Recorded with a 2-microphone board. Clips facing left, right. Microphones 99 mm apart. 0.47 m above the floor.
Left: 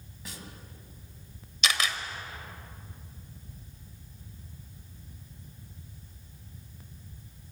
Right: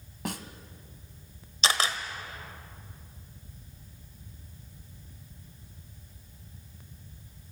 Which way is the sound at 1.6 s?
35° right (ahead or behind).